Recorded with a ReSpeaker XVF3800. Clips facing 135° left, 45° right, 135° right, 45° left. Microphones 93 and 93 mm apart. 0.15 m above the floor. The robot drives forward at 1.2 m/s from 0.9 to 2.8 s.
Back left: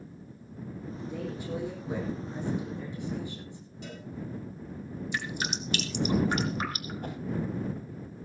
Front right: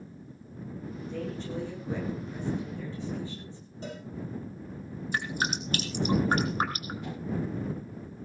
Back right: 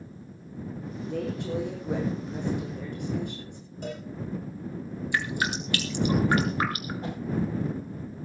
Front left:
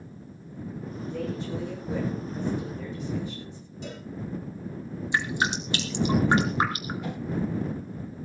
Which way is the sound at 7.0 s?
175° left.